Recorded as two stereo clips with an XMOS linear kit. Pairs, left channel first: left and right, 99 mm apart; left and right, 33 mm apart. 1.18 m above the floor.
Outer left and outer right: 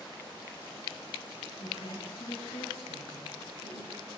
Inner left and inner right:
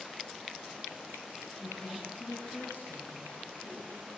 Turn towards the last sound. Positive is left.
turn(degrees=80)